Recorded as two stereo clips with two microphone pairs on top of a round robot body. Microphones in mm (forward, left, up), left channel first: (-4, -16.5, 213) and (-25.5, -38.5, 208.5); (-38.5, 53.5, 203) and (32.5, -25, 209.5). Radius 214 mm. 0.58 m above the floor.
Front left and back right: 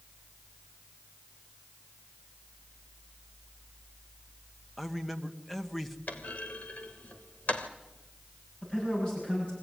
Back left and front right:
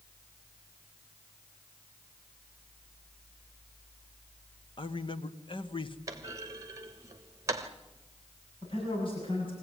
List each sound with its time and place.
4.8 s a man speaking: 135° left, 1.8 m
6.1 s a clunk: 15° left, 1.4 m
8.6 s a man speaking: 95° left, 8.5 m